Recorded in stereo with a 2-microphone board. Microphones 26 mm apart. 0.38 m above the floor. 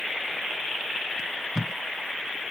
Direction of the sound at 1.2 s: 25° right (ahead or behind).